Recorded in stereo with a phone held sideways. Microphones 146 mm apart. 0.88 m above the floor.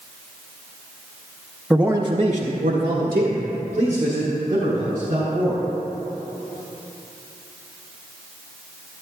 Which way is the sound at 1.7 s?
Centre (ahead or behind).